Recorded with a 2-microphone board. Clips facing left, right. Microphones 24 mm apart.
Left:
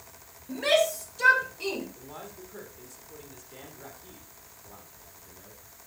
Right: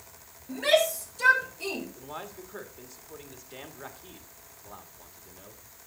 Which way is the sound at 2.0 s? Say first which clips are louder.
Right 3 dB; 25° right (ahead or behind).